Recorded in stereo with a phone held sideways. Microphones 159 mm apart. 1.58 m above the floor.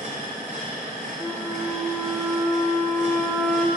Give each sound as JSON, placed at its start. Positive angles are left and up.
{"t": 0.0, "sound": "a machine running", "side_deg": -55, "distance_m": 2.0}
{"t": 1.2, "sound": "a flute", "side_deg": 5, "distance_m": 0.5}